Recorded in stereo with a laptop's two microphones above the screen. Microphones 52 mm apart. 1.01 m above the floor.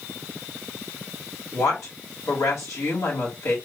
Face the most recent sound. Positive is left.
turn(degrees=70)  # may be behind; listen again after turning